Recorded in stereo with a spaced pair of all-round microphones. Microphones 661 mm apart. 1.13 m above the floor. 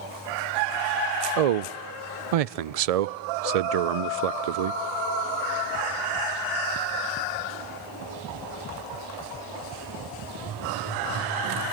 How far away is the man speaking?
About 0.5 m.